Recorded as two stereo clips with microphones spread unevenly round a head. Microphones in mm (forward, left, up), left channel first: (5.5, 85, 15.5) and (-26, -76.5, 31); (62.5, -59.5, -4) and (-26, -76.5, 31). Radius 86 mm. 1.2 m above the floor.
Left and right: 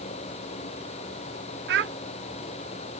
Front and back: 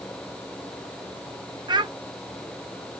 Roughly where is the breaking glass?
I don't hear breaking glass.